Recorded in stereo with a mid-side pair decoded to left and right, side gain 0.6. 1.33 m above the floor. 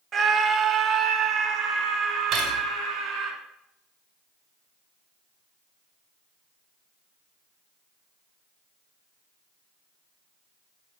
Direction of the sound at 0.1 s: 45° right.